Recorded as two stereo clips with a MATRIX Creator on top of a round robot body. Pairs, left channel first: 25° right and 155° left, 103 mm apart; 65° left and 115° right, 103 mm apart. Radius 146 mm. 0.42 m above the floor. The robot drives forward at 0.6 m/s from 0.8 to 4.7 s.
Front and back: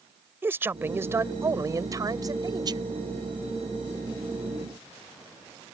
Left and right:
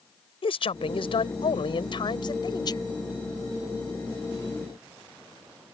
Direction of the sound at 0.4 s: 90° left.